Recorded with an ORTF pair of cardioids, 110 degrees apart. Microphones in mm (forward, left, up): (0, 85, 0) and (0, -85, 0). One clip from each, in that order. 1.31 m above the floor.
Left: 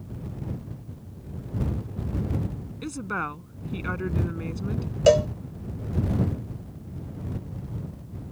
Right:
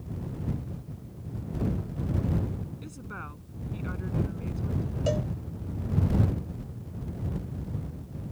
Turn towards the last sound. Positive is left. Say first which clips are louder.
# left 13 dB
turn(degrees=70)